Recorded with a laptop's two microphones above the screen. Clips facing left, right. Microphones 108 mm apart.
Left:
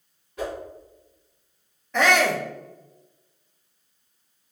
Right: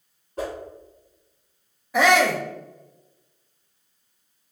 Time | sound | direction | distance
0.4 | a whoosh | 35° right (ahead or behind) | 1.0 m
1.9 | a shout | 10° right (ahead or behind) | 0.6 m